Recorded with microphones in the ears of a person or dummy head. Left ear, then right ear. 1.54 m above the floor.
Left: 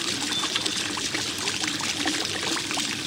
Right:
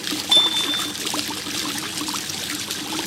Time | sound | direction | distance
0.3 | hammering | 75° right (ahead or behind) | ?